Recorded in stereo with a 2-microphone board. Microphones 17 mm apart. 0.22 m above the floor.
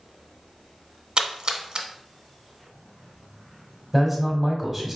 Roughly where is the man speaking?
Centre.